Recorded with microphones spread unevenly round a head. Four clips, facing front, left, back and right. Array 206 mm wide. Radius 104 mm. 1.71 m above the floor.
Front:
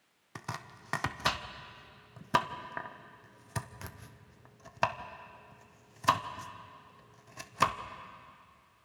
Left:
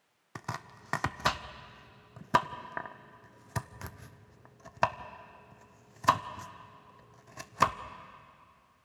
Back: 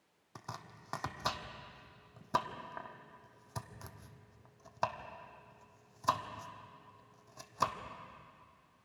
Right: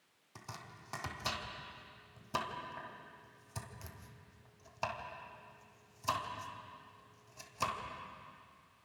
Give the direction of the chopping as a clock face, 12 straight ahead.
10 o'clock.